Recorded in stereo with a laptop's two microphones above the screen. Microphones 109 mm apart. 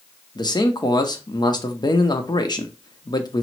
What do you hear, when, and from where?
0.3 s a man speaking: 40° left (ahead or behind), 0.7 m